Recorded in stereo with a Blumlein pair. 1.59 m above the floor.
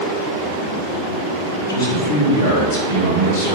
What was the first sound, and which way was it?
A man speaking, 60° left.